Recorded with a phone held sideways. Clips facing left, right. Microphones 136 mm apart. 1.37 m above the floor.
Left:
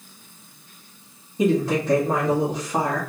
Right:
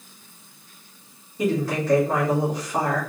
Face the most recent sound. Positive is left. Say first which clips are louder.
# left 3 dB
turn(degrees=15)  # may be behind; listen again after turning